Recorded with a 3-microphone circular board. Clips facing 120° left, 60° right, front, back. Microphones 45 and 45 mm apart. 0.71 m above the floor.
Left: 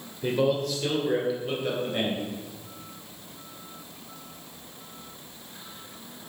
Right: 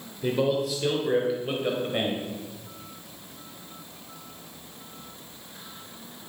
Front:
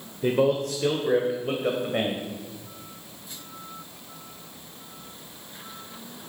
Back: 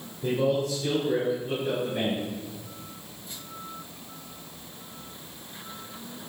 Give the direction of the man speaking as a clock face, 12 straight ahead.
11 o'clock.